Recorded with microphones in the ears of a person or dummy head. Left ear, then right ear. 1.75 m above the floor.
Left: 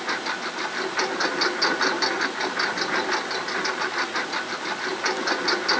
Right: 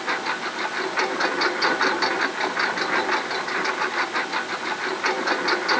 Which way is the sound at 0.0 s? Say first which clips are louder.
Right 2 dB; 15° right (ahead or behind).